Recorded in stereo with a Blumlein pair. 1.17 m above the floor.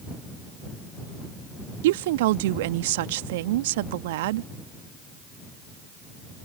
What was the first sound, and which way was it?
A woman speaking, 55° right.